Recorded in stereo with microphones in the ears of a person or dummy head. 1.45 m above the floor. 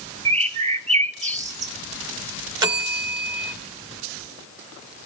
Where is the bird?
30° right (ahead or behind), 0.6 m.